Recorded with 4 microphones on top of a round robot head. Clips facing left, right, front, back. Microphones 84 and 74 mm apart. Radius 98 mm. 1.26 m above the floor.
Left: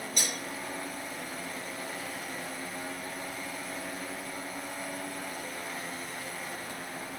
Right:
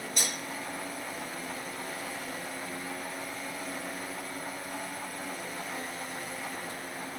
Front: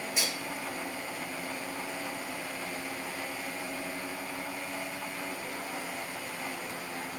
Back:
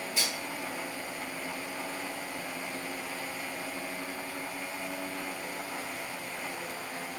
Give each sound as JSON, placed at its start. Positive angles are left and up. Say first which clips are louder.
{"t": 0.2, "sound": "cutlery clinking", "louder": "right 1 dB, even", "azimuth_deg": -75, "distance_m": 1.6}